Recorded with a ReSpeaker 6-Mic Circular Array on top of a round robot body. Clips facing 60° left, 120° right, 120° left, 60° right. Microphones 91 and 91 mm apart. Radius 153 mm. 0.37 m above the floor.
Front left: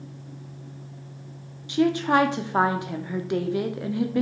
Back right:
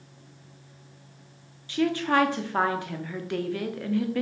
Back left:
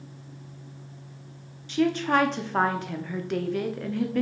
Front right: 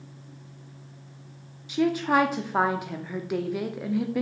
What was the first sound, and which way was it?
A woman speaking, 10° left.